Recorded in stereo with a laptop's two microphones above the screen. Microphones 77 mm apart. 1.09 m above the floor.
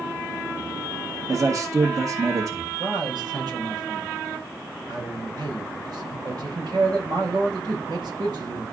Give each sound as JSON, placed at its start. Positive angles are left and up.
{"t": 1.3, "sound": "a man speaking", "side_deg": -50, "distance_m": 1.7}
{"t": 2.8, "sound": "a man speaking", "side_deg": -70, "distance_m": 5.0}